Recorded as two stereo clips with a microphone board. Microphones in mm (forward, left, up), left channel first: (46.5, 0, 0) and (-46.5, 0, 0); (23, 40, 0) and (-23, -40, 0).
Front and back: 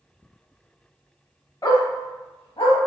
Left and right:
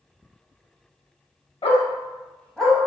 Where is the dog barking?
50° left, 0.6 m; by 2.8 s 35° right, 0.9 m.